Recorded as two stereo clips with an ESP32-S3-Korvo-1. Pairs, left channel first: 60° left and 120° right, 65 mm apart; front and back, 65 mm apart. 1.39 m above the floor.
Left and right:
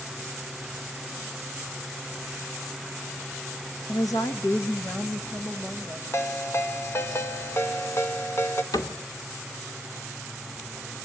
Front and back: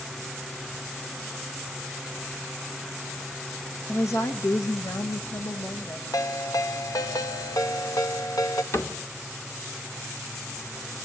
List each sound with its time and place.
3.9 s a woman speaking: 50° left, 1.9 m; by 6.0 s 35° right, 3 m
6.1 s a ringtone: 15° left, 1.6 m
8.7 s a cupboard door: 45° left, 2.5 m